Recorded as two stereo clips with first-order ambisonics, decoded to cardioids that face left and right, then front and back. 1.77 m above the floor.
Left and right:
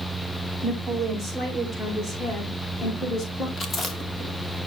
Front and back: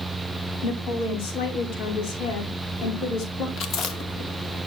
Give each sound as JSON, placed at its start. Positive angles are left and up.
{"t": 0.6, "sound": "a woman speaking", "azimuth_deg": 15, "distance_m": 4.0}
{"t": 3.6, "sound": "chewing", "azimuth_deg": 35, "distance_m": 1.7}